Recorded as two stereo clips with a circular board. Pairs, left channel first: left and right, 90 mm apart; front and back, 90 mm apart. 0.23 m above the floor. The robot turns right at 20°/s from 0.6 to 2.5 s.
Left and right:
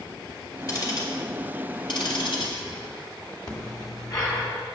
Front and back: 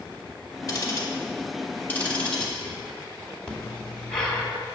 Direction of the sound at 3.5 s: 80° left.